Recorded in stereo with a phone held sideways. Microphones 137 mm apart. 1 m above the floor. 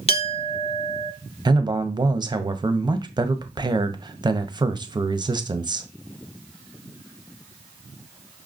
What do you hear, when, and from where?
0.1 s a clink: 45° left (ahead or behind), 0.9 m
1.4 s a man speaking: 30° right (ahead or behind), 0.6 m